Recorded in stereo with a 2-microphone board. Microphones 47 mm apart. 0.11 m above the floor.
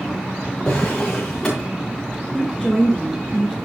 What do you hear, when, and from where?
0.7 s a drawer: 25° left (ahead or behind), 6.5 m
2.3 s a woman speaking: 5° left (ahead or behind), 1.4 m